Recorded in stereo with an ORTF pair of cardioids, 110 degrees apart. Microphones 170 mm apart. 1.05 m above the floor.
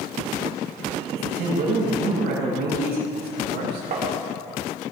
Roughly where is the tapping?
Ahead right.